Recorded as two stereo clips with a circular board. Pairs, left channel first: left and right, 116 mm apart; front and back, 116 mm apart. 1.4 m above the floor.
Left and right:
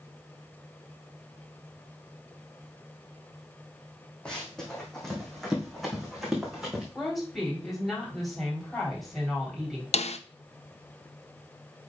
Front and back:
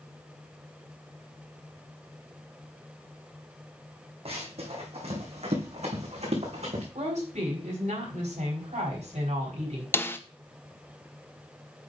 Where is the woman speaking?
Straight behind, 4 m.